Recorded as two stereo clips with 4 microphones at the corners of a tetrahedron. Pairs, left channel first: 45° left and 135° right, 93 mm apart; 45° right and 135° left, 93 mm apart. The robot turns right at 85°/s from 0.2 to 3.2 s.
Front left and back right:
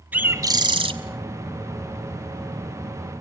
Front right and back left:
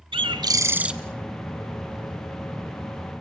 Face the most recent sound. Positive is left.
turn(degrees=50)